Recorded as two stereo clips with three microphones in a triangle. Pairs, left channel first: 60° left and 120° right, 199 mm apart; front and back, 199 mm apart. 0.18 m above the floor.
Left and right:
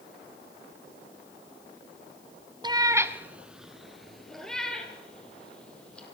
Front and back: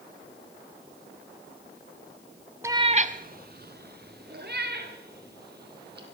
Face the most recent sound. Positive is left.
turn(degrees=145)